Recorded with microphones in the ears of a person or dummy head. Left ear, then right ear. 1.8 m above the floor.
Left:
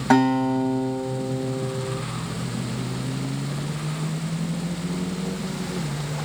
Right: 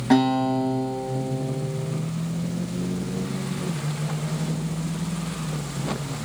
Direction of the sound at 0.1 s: 40° left (ahead or behind).